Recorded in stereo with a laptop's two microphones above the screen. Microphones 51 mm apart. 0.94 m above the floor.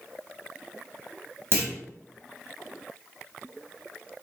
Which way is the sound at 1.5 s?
50° right (ahead or behind).